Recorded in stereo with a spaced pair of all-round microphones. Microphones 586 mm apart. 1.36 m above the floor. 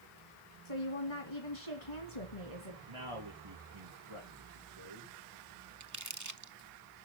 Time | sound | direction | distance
0.7 | a woman speaking | 65° left (ahead or behind) | 1.8 m
2.9 | a man speaking | 55° right (ahead or behind) | 2.5 m
5.8 | crumpling | 30° right (ahead or behind) | 0.6 m